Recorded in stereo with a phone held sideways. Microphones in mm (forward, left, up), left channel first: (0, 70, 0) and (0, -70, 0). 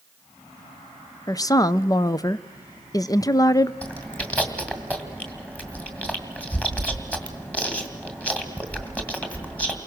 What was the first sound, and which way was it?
A woman speaking, 25° left (ahead or behind).